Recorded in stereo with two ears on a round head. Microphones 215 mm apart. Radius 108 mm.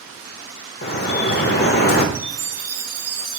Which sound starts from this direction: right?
A chime, at 2.1 s.